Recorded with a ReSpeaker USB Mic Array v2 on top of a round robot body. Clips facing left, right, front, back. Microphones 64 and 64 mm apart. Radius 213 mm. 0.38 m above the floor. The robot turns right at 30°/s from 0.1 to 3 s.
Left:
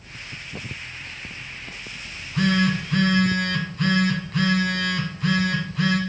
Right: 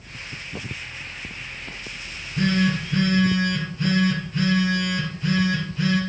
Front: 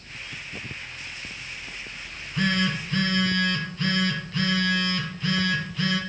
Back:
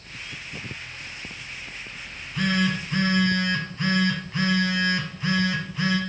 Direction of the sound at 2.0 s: 80° left.